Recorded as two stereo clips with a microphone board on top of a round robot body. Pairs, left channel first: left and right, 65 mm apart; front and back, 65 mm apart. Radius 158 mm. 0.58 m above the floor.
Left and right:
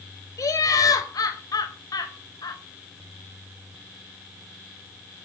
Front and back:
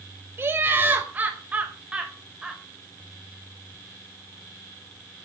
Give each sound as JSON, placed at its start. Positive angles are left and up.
{"t": 0.4, "sound": "laughter", "azimuth_deg": 125, "distance_m": 4.5}